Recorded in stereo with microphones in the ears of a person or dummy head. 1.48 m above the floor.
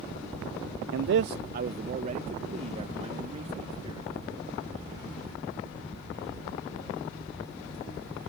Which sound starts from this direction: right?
A man speaking, at 0.9 s.